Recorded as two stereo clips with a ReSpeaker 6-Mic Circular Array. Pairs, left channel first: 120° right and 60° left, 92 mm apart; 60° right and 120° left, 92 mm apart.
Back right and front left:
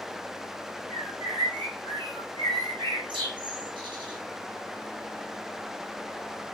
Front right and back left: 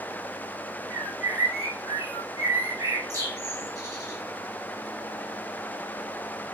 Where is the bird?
75° left, 1.0 m.